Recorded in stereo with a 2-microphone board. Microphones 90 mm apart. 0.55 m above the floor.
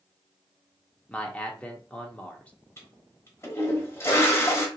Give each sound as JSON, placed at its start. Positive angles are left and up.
{"t": 1.1, "sound": "a man speaking", "side_deg": 15, "distance_m": 0.9}
{"t": 2.8, "sound": "a toilet flushing", "side_deg": 30, "distance_m": 1.1}